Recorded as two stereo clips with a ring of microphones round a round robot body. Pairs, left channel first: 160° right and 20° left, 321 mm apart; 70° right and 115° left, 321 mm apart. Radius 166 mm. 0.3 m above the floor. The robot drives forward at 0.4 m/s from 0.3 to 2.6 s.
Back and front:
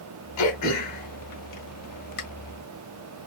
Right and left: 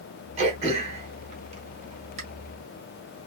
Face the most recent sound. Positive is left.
turn(degrees=180)